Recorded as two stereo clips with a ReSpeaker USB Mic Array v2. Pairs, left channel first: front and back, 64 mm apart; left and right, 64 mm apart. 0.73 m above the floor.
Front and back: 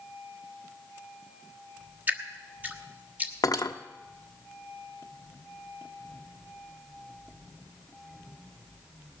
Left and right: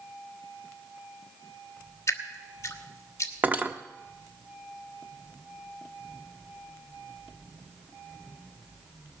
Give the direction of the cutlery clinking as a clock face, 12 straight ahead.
1 o'clock.